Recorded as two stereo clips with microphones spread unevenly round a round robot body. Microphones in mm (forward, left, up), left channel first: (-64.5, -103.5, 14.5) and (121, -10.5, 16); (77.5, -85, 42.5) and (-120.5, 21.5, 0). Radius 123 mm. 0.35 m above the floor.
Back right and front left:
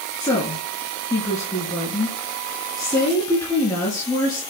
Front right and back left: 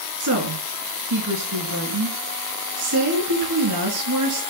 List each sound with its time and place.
0.2 s a woman speaking: 130° left, 4 m